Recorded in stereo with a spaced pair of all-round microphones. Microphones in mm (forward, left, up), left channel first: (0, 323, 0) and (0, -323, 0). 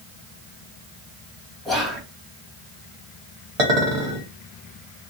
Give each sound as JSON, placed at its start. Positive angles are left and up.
{"t": 1.6, "sound": "whispering", "side_deg": 0, "distance_m": 1.1}
{"t": 3.6, "sound": "a clink", "side_deg": -55, "distance_m": 1.2}